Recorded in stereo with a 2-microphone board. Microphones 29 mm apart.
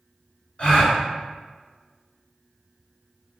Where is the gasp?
40° left (ahead or behind), 1.1 m.